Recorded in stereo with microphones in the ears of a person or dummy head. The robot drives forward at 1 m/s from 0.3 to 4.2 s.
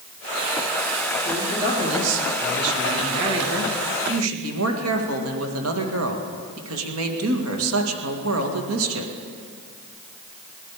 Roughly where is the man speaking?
Right.